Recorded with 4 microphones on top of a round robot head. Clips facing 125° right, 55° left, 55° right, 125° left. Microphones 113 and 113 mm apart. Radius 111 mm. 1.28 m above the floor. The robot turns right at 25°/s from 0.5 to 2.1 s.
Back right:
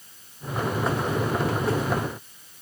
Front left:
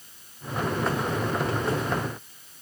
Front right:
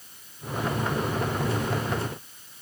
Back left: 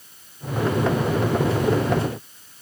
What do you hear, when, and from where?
Only background noise.